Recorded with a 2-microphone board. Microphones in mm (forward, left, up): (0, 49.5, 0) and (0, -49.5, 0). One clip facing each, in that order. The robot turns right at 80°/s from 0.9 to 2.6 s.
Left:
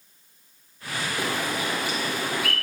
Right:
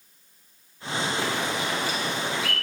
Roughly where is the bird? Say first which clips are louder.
Even; centre.